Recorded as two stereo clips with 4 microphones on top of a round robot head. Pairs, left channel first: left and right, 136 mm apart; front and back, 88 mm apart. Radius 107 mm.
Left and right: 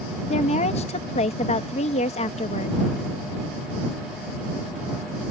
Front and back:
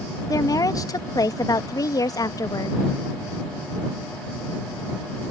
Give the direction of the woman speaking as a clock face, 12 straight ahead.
10 o'clock.